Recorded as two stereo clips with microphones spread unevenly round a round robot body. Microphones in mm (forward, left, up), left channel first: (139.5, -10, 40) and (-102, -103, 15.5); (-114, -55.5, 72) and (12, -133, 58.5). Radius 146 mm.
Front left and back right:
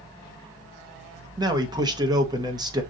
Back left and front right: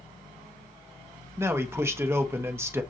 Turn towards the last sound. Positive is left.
turn(degrees=-95)